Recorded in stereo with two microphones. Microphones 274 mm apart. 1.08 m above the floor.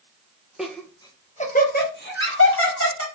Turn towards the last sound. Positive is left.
turn(degrees=55)  # may be behind; listen again after turning